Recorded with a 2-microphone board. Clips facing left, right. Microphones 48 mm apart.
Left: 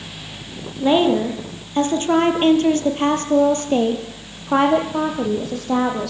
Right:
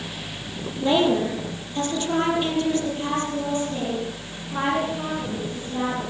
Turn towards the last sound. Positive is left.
turn(degrees=80)